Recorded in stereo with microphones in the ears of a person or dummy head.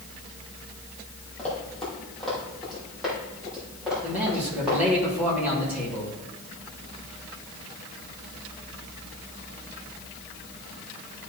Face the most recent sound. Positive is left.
turn(degrees=-10)  # may be behind; listen again after turning